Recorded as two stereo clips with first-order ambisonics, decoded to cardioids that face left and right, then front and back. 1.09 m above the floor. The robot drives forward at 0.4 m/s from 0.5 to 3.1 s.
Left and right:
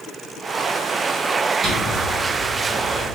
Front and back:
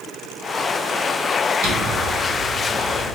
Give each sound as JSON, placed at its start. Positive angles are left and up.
{"t": 1.6, "sound": "a drawer", "azimuth_deg": 180, "distance_m": 2.0}